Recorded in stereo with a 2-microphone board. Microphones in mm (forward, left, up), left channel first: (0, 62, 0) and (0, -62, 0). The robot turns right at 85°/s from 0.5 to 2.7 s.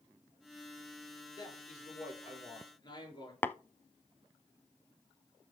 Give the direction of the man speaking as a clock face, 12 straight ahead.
11 o'clock.